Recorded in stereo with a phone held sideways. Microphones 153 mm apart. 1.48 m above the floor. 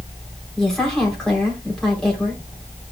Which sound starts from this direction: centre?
A woman speaking, at 0.6 s.